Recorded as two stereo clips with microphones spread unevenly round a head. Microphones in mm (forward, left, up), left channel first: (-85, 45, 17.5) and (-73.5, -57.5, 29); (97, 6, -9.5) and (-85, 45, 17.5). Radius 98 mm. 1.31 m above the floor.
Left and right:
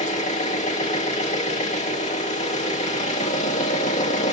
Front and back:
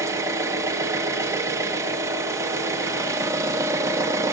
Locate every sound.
0.0 s an engine running: 95° left, 1.7 m